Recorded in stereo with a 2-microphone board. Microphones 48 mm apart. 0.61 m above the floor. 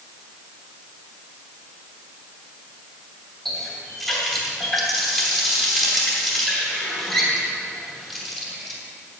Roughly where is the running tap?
Centre.